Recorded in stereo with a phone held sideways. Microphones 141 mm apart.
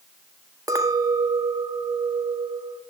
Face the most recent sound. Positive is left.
turn(degrees=-25)  # may be behind; listen again after turning